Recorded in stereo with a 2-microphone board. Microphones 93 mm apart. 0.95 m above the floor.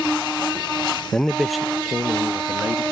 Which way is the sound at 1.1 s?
5° left (ahead or behind).